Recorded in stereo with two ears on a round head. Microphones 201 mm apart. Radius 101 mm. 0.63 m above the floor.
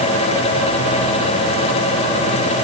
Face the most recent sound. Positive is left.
No sound to turn to.